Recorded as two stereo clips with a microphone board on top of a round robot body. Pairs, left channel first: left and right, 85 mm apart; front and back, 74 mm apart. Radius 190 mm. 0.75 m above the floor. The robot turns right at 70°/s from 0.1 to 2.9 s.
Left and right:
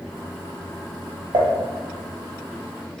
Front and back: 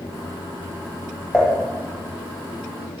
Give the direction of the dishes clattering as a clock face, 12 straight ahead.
3 o'clock.